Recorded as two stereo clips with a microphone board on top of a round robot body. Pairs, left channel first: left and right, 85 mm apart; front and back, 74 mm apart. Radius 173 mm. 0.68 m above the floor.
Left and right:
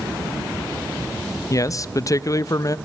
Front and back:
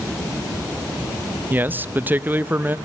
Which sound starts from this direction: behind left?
A man speaking, at 1.5 s.